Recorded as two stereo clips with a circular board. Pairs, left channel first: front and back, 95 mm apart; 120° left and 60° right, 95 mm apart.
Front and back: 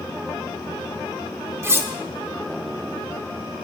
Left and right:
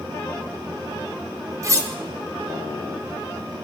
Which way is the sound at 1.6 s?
115° right.